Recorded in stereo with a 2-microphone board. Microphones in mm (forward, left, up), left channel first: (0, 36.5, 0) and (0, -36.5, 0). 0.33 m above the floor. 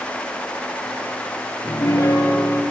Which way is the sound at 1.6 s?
55° left (ahead or behind).